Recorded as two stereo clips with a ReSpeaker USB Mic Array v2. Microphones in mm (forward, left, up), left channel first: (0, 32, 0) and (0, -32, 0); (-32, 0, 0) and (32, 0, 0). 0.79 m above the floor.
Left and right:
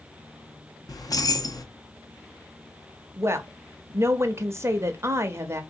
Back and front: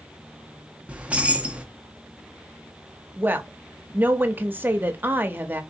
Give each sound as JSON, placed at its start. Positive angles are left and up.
{"t": 0.9, "sound": "keys jangling", "azimuth_deg": 70, "distance_m": 0.6}
{"t": 3.2, "sound": "a woman speaking", "azimuth_deg": -55, "distance_m": 0.7}